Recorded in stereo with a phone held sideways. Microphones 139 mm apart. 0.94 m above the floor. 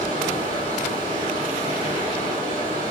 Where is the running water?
35° right (ahead or behind), 1.6 m.